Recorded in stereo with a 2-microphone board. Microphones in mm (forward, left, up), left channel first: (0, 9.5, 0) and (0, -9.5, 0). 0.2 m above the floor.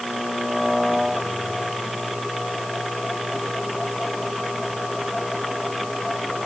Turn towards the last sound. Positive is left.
No sound to turn to.